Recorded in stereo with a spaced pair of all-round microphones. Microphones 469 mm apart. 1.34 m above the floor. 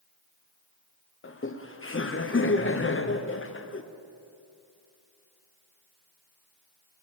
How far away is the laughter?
About 0.6 m.